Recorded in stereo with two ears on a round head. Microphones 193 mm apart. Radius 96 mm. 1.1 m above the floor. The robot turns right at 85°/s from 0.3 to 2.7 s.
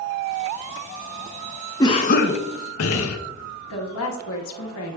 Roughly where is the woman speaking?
Left.